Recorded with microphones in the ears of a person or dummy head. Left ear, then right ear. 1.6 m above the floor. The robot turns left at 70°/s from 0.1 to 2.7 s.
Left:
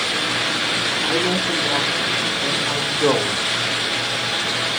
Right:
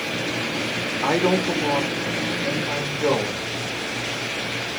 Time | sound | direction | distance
1.0 | a man speaking | 105° right | 0.5 m